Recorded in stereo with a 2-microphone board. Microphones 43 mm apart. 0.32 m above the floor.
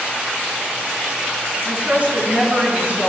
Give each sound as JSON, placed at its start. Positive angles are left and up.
{"t": 1.6, "sound": "a woman speaking", "side_deg": -35, "distance_m": 4.5}